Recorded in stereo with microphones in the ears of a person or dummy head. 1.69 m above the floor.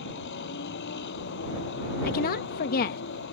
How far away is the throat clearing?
I don't hear throat clearing.